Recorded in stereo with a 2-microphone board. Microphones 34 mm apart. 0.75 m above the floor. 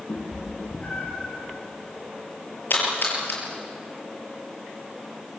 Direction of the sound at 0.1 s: 70° left (ahead or behind).